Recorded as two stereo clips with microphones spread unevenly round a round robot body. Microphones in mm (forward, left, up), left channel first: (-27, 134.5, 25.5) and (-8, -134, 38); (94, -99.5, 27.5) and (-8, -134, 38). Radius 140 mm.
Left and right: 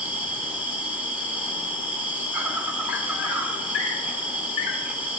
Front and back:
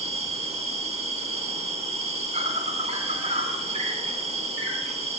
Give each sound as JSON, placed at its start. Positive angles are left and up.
{"t": 0.0, "sound": "an insect", "azimuth_deg": -170, "distance_m": 2.5}